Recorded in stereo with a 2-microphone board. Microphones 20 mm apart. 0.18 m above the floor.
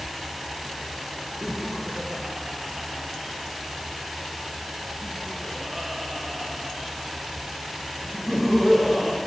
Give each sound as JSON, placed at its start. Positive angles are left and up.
{"t": 1.4, "sound": "laughter", "side_deg": -30, "distance_m": 3.0}